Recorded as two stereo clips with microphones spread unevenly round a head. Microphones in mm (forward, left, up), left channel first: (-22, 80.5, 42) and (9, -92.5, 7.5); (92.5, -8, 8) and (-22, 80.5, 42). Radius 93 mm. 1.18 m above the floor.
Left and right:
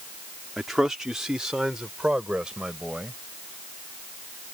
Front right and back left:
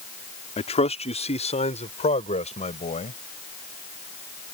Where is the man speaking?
10° left; by 3.2 s 5° left.